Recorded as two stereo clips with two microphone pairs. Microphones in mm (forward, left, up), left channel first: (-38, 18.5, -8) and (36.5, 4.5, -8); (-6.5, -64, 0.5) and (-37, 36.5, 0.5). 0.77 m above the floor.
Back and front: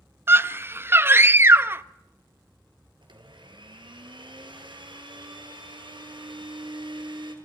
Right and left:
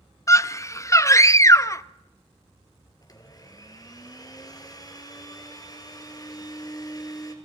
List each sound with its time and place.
0.3 s a scream: 40° right, 0.6 m
3.0 s a blender: 20° right, 3 m